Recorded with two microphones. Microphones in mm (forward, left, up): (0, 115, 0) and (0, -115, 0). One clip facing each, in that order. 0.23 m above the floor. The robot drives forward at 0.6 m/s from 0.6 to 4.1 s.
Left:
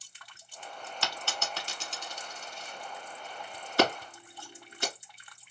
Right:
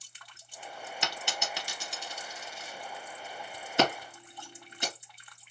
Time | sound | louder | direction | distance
1.0 | a dropped coin | even | 20° right (ahead or behind) | 0.5 m
3.8 | scissors | left 1 dB | 20° right (ahead or behind) | 2 m